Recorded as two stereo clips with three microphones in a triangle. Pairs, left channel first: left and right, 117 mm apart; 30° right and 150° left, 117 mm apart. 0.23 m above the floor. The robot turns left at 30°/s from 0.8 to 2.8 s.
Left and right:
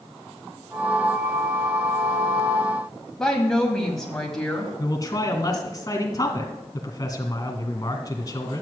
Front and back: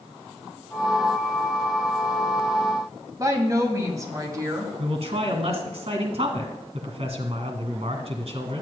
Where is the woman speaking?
170° left, 1.7 m.